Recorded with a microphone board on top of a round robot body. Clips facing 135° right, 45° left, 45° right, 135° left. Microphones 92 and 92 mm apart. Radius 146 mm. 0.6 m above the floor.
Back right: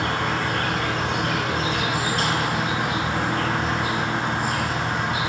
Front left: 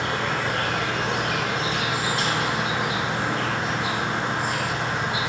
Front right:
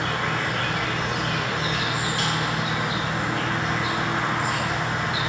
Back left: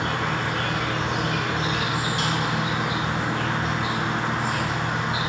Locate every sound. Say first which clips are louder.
0.0 s an insect: back right 1 dB, even; 155° right, 1.0 m